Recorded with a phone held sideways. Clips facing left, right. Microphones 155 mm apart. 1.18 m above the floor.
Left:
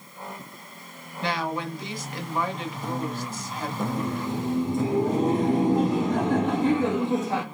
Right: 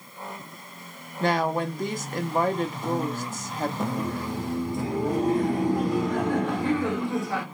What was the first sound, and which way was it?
A woman speaking, 45° right (ahead or behind).